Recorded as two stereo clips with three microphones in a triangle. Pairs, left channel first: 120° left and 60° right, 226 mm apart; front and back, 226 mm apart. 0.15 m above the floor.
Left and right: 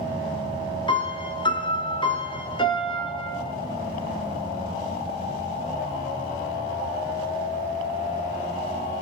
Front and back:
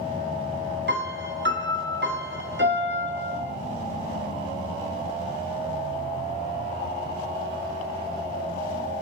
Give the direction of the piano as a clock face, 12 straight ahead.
6 o'clock.